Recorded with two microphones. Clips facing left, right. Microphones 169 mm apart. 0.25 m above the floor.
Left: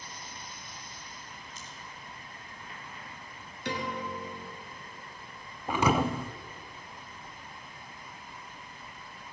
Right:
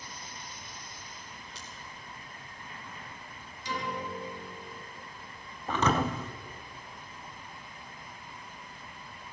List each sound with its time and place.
1.6 s scissors: 75° right (ahead or behind), 4.5 m
3.6 s a piano: 65° left (ahead or behind), 4.5 m
5.7 s a thud: 10° left (ahead or behind), 0.8 m